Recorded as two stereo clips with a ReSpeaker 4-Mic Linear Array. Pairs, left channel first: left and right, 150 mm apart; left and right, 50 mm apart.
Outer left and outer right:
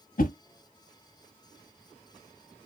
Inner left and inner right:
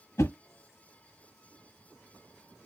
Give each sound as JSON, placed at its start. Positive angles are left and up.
{"t": 0.2, "sound": "a whoosh", "side_deg": 70, "distance_m": 0.6}